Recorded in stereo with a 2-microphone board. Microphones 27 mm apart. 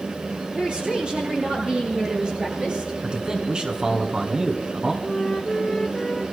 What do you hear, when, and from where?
0.5 s a woman speaking: 40° right (ahead or behind), 7.5 m
3.0 s a man speaking: 30° right (ahead or behind), 2 m
5.0 s a flute: 15° left (ahead or behind), 1.1 m